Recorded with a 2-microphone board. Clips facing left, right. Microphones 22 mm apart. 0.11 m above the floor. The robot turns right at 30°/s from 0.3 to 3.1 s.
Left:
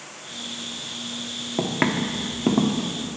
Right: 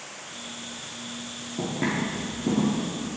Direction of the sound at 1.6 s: 60° left (ahead or behind).